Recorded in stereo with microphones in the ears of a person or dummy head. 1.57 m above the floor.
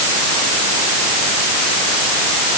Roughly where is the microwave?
I don't hear a microwave.